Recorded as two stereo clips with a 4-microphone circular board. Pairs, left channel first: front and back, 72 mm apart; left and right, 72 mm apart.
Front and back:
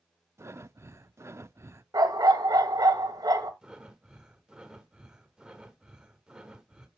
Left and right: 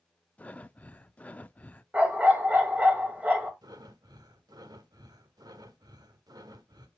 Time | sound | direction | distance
0.4 | breathing | 150° left | 0.5 m
1.9 | a dog barking | 160° right | 1.8 m
3.6 | breathing | 105° right | 1.1 m